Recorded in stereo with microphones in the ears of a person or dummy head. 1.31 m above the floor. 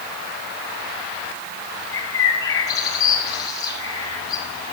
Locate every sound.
1.9 s a bird: 20° left (ahead or behind), 5 m